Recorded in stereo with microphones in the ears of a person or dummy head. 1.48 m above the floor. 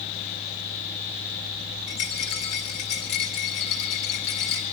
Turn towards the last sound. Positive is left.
turn(degrees=35)  # may be behind; listen again after turning